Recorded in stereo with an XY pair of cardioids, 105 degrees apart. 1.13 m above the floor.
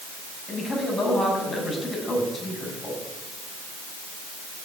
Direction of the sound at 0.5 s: 20° left.